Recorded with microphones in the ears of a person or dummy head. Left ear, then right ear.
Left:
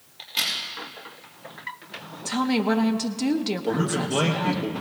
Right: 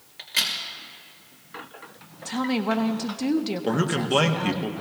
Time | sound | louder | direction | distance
0.2 | a crack | right 1 dB | 65° right (ahead or behind) | 3.5 m
2.2 | a woman speaking | left 2 dB | 5° left (ahead or behind) | 0.6 m
3.6 | a man speaking | right 1 dB | 75° right (ahead or behind) | 1.1 m